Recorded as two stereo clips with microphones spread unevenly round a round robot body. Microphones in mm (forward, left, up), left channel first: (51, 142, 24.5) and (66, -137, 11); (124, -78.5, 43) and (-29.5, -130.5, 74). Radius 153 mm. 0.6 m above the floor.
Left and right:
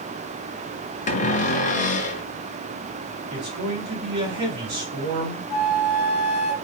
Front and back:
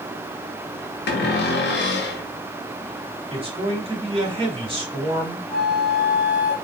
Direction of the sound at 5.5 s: 85° left.